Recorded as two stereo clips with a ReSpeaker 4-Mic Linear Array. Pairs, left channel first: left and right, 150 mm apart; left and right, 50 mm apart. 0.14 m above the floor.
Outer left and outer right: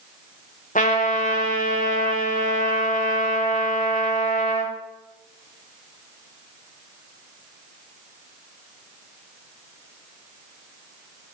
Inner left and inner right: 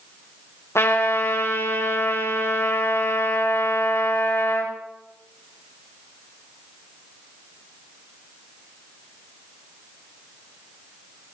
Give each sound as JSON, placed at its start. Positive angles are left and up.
{"t": 0.8, "sound": "a trumpet", "side_deg": 65, "distance_m": 6.0}